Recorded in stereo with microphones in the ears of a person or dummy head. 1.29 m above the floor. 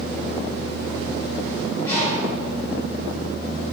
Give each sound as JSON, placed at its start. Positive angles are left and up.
{"t": 1.8, "sound": "a bird", "side_deg": 10, "distance_m": 5.0}